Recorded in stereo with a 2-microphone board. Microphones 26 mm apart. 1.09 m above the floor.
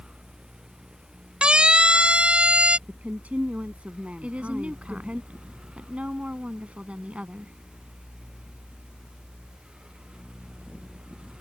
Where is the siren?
40° right (ahead or behind); by 2.8 s 50° right (ahead or behind).